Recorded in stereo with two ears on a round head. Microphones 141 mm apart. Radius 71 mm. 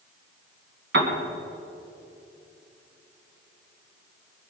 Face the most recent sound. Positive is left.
turn(degrees=-70)  # may be behind; listen again after turning